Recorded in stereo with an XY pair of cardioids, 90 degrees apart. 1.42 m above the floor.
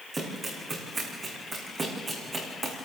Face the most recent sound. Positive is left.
turn(degrees=-40)